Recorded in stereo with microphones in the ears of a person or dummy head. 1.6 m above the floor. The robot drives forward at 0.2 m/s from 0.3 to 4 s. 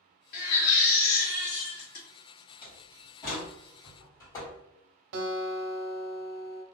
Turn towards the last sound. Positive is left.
turn(degrees=-70)  # may be behind; listen again after turning